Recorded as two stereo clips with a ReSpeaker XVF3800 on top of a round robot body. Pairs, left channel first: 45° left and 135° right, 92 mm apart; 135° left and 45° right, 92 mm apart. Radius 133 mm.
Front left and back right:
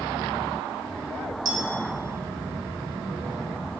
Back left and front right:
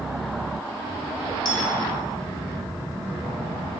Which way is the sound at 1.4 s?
175° left.